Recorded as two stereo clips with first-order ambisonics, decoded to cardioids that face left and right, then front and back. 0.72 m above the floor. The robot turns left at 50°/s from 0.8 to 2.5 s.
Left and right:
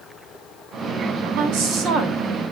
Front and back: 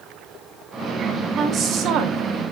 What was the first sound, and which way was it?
A woman speaking, 110° right.